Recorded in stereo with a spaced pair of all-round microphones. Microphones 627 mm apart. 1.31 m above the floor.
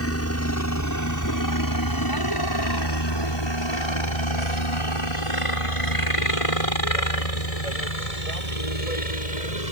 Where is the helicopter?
20° left (ahead or behind); by 9.7 s 70° left (ahead or behind).